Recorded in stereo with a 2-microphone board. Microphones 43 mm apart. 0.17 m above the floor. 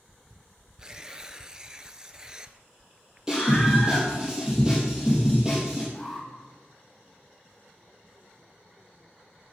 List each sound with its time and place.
0.8 s tearing paper: 20° right (ahead or behind), 0.8 m
3.3 s a scream: 5° right (ahead or behind), 4 m
5.9 s an alarm: centre (ahead or behind), 5.5 m